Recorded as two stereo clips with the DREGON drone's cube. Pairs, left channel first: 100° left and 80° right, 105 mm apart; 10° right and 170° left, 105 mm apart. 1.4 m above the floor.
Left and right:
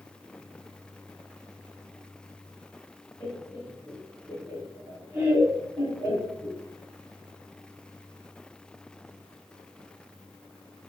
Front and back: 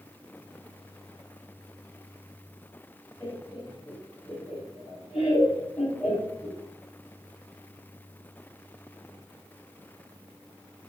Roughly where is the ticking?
I don't hear ticking.